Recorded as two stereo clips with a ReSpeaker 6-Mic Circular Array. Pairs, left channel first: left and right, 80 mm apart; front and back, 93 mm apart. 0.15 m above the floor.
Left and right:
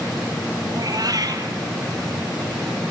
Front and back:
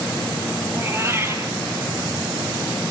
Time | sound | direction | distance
0.7 | a cat meowing | 120° right | 2.5 m